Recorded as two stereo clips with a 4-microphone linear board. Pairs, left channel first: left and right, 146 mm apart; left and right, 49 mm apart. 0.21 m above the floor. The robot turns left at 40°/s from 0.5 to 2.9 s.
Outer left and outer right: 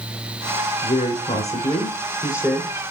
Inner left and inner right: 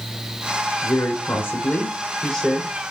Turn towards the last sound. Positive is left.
turn(degrees=0)